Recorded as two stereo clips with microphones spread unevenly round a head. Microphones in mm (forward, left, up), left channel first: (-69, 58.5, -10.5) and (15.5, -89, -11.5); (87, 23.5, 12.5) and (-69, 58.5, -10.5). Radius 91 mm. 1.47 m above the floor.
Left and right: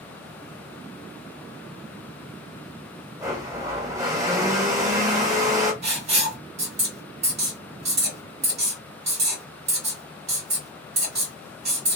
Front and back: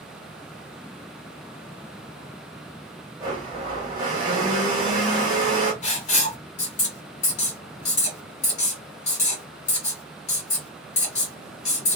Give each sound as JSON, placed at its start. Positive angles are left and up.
{"t": 3.2, "sound": "a blender", "azimuth_deg": -125, "distance_m": 1.1}
{"t": 5.8, "sound": "writing", "azimuth_deg": -25, "distance_m": 1.7}